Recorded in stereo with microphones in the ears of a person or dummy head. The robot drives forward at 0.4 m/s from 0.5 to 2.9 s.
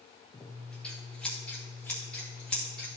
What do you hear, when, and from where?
0.3 s scissors: centre (ahead or behind), 1.1 m